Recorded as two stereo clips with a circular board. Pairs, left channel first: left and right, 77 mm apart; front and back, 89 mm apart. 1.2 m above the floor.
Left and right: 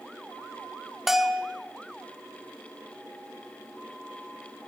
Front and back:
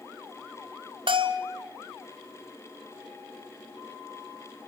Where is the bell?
175° right, 1.8 m.